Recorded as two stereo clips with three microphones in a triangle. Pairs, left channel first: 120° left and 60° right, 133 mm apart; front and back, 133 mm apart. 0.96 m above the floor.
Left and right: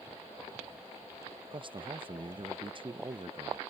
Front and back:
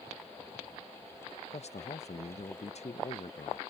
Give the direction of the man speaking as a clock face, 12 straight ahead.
1 o'clock.